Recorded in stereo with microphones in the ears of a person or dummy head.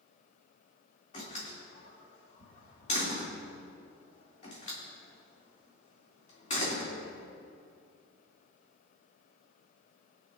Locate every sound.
1.1 s a door slam: 35° left (ahead or behind), 2.5 m